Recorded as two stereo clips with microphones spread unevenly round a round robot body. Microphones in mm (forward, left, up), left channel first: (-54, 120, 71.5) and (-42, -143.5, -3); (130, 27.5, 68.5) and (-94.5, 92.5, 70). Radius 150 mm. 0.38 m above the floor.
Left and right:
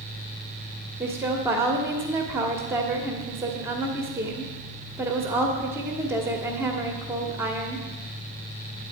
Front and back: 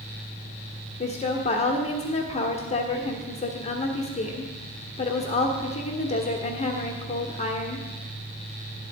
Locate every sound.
1.0 s a woman speaking: 45° right, 1.3 m